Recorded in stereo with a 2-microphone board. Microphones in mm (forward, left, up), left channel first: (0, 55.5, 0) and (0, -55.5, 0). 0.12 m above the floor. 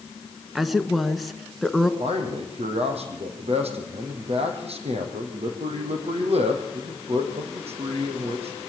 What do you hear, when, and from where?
0.6 s a woman speaking: centre (ahead or behind), 1.5 m
2.0 s a man speaking: 70° right (ahead or behind), 5 m